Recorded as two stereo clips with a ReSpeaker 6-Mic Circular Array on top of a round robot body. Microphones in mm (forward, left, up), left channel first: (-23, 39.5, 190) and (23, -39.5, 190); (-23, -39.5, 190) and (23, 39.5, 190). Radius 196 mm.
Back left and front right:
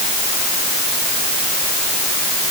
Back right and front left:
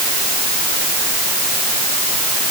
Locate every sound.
Only background noise.